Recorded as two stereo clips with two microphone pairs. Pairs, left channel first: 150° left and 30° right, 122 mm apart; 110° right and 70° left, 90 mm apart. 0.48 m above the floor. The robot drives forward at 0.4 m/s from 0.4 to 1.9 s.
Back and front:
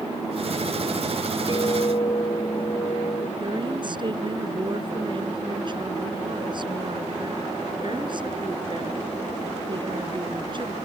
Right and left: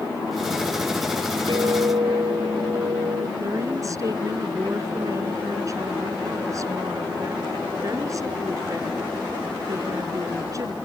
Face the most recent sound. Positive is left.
turn(degrees=20)